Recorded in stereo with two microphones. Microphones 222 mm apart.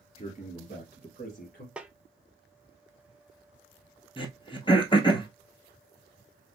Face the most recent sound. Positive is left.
turn(degrees=20)  # may be behind; listen again after turning